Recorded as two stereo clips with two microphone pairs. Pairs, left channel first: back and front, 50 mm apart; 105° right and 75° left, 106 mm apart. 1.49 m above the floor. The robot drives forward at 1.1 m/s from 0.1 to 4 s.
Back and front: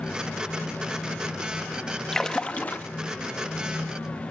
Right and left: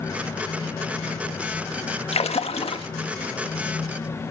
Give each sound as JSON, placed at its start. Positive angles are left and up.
{"t": 2.1, "sound": "a splash", "azimuth_deg": -100, "distance_m": 1.3}